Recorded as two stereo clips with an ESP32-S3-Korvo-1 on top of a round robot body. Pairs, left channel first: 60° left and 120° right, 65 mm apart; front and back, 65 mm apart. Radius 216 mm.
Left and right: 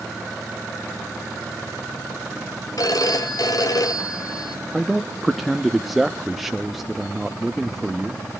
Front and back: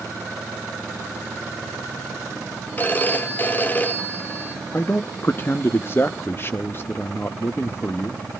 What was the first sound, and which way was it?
A phone ringing, 60° left.